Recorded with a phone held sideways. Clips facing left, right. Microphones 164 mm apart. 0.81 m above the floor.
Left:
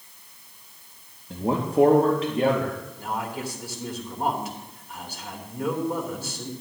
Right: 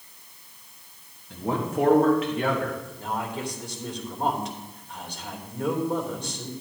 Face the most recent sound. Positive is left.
turn(degrees=10)  # may be behind; listen again after turning